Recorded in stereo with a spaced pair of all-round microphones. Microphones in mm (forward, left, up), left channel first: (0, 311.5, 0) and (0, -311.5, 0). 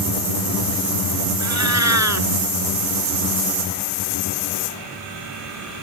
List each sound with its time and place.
1.4 s a cat meowing: 25° right (ahead or behind)